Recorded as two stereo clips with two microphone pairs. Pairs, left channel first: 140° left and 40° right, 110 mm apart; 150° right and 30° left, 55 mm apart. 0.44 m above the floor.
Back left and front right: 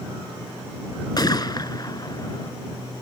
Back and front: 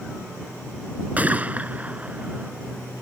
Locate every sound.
1.2 s a gunshot: 90° left